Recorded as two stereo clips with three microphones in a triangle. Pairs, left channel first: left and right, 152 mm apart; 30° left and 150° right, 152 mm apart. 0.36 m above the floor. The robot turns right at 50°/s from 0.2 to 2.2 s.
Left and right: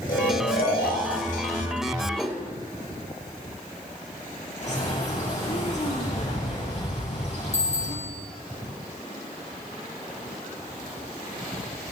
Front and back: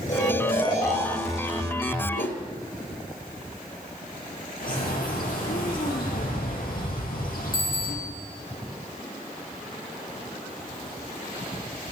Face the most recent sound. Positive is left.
turn(degrees=50)